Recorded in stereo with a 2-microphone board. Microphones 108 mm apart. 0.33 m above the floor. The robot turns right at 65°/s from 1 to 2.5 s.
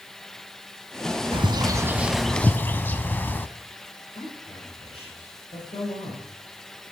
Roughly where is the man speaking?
Left.